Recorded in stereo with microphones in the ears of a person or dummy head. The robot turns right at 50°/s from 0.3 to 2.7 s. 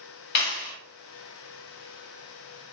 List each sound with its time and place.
0.3 s a clap: 55° left (ahead or behind), 1.3 m; by 0.8 s 70° left (ahead or behind), 1.3 m